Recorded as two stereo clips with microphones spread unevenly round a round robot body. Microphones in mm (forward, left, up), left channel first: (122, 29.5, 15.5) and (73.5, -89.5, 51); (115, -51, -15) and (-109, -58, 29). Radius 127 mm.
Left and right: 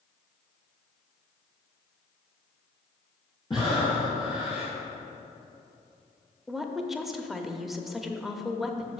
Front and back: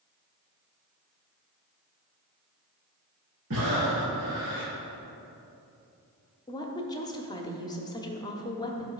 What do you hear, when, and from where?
3.5 s breathing: 145° left, 2.5 m
6.5 s a woman speaking: 5° left, 0.9 m